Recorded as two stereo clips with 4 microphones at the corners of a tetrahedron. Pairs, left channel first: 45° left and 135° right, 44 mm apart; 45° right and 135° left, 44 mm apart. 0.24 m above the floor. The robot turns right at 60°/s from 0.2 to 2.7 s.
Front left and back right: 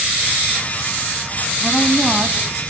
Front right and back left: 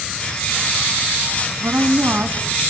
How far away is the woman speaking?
About 1.9 m.